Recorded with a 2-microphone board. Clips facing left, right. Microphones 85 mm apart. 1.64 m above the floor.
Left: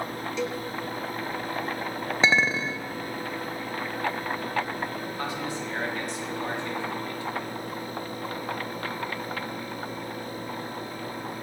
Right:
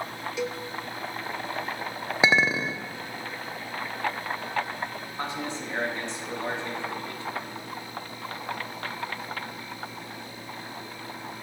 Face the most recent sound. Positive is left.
turn(degrees=-25)  # may be behind; listen again after turning